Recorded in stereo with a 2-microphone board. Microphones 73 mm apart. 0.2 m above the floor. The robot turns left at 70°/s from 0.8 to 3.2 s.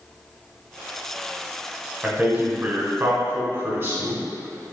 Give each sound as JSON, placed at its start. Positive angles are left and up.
{"t": 2.0, "sound": "a man speaking", "side_deg": -15, "distance_m": 1.2}